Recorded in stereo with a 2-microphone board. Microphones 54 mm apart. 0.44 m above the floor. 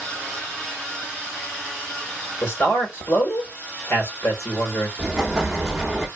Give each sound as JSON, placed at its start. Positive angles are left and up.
{"t": 2.4, "sound": "a man speaking", "side_deg": 50, "distance_m": 1.3}
{"t": 5.0, "sound": "an explosion", "side_deg": -10, "distance_m": 0.8}